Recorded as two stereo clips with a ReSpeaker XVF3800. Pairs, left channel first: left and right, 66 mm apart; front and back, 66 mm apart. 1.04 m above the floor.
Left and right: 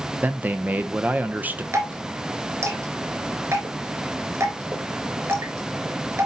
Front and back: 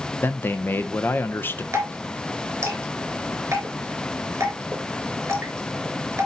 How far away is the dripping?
About 3.5 m.